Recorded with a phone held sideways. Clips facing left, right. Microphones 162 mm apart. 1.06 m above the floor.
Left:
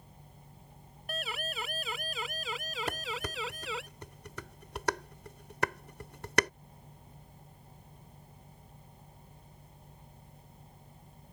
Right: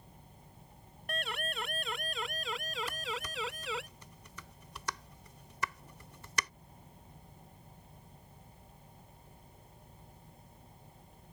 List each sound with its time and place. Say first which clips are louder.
1.1 s a siren: even; 5° left (ahead or behind); by 3.9 s centre (ahead or behind)
2.9 s dishes clattering: left 3 dB; 65° left (ahead or behind)